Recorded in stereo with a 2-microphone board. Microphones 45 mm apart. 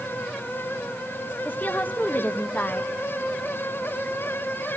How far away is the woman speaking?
About 1.1 m.